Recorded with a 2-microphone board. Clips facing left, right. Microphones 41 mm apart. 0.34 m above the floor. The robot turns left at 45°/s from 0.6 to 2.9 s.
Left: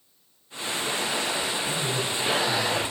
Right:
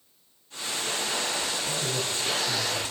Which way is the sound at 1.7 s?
Centre (ahead or behind).